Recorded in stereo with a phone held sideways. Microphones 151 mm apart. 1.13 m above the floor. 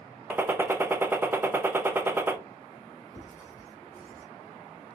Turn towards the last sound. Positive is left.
turn(degrees=20)  # may be behind; listen again after turning